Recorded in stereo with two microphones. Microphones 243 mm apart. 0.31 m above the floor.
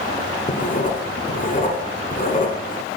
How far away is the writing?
About 1.0 m.